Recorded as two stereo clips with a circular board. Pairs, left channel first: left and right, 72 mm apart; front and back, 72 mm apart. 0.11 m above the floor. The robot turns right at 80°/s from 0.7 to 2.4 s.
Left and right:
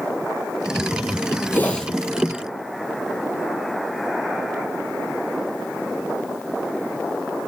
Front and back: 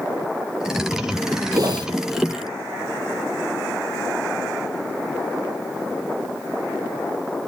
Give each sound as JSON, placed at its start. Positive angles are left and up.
{"t": 1.5, "sound": "a whoosh", "azimuth_deg": 150, "distance_m": 0.6}